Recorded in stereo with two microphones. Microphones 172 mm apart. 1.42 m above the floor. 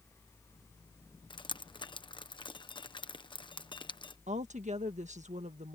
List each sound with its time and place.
1.3 s dripping: 30° left (ahead or behind)
4.3 s a woman speaking: 45° right (ahead or behind)